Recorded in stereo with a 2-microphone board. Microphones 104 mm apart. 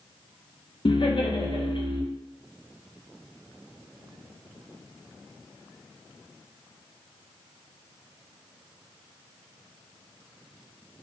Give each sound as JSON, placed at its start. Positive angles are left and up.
{"t": 0.8, "sound": "laughter", "side_deg": 55, "distance_m": 0.7}